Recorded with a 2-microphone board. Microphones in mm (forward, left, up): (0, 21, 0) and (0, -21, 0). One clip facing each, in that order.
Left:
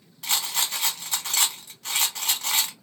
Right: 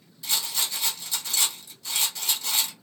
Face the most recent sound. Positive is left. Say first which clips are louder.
# left 2 dB
turn(degrees=55)  # may be behind; listen again after turning